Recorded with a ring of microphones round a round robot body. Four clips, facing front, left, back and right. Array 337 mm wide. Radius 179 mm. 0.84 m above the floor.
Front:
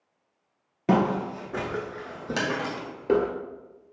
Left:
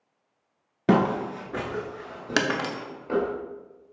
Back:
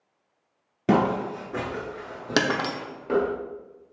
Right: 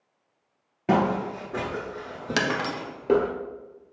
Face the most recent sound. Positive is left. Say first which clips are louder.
# left 1 dB, back 5 dB
turn(degrees=165)